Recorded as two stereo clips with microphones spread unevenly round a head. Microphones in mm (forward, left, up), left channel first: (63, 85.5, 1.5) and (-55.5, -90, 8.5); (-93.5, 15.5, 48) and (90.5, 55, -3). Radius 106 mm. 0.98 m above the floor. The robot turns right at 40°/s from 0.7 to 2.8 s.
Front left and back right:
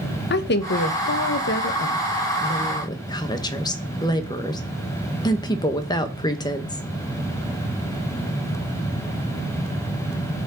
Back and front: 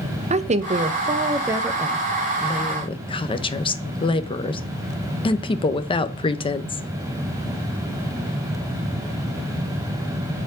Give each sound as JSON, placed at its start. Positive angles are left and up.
{"t": 0.3, "sound": "a woman speaking", "azimuth_deg": 40, "distance_m": 0.9}